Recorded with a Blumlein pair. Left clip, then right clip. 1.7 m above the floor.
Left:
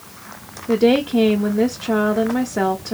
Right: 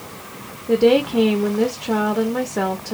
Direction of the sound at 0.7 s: 5° left.